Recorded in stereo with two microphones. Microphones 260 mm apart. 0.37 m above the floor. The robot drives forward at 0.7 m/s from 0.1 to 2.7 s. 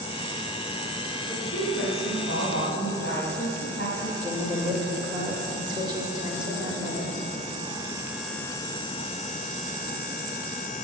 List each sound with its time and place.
1.3 s a woman speaking: 55° left (ahead or behind), 2 m; by 4.1 s 45° left (ahead or behind), 2.5 m
4.2 s a woman speaking: 15° right (ahead or behind), 1.6 m